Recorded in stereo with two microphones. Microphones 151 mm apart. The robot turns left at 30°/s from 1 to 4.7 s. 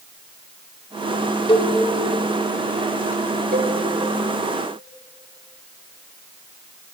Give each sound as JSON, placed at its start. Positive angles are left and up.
{"t": 1.5, "sound": "a cowbell", "side_deg": 35, "distance_m": 1.8}
{"t": 3.5, "sound": "a cowbell", "side_deg": -80, "distance_m": 3.5}